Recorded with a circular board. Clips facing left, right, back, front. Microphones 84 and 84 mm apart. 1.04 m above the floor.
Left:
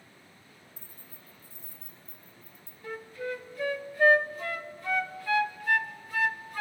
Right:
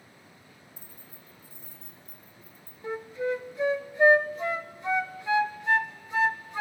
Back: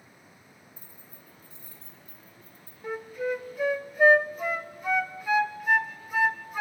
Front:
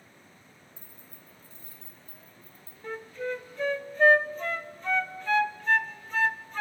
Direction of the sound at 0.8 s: 60° right.